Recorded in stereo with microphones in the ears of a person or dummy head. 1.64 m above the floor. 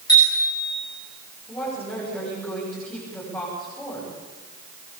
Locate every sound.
0.1 s a bicycle bell: 25° left (ahead or behind), 8 m
1.5 s a woman speaking: 10° left (ahead or behind), 9.5 m